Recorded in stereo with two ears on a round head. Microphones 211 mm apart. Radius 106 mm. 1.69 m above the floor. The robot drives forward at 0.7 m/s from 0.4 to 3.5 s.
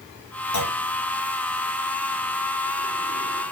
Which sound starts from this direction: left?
A clunk, at 0.5 s.